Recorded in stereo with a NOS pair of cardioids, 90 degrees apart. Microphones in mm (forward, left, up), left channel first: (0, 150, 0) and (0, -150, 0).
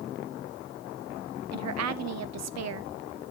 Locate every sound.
1.5 s a woman speaking: 60° right, 1.0 m